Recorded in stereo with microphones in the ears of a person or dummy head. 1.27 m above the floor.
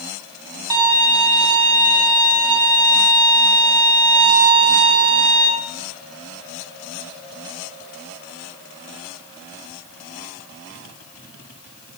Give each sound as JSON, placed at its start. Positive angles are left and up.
{"t": 0.7, "sound": "a violin", "side_deg": -25, "distance_m": 0.6}